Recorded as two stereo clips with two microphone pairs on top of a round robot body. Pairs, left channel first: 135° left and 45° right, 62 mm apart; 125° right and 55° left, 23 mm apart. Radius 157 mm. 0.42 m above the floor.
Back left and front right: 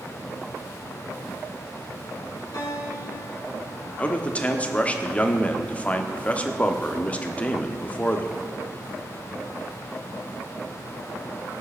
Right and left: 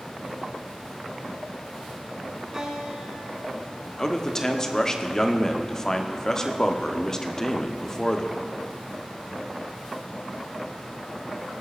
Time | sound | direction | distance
2.5 | a guitar | 130° left | 5 m
4.0 | a man speaking | 170° right | 1.7 m